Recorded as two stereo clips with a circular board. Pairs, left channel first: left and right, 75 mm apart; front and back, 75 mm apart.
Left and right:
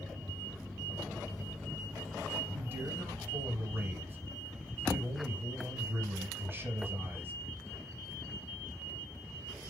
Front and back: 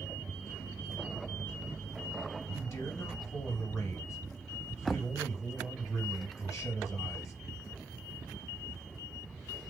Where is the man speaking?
35° right, 3 m.